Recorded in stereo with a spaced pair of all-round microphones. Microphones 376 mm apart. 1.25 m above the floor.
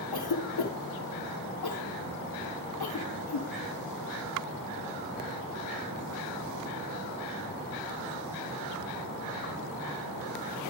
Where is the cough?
85° left, 0.6 m.